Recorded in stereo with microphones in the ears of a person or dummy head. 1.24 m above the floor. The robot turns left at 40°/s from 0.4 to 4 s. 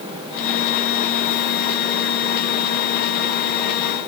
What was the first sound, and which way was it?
Only background noise.